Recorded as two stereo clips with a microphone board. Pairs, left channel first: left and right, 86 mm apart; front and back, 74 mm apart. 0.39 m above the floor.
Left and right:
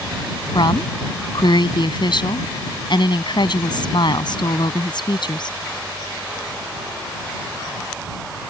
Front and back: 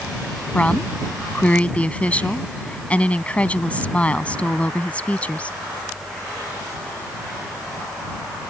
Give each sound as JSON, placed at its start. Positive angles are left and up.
{"t": 0.6, "sound": "a woman speaking", "azimuth_deg": 70}